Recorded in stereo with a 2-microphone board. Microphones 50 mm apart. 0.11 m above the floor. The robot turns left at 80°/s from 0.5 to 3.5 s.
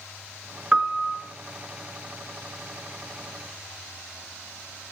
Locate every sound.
0.7 s a piano: 130° right, 1.1 m; by 1.2 s 175° right, 1.1 m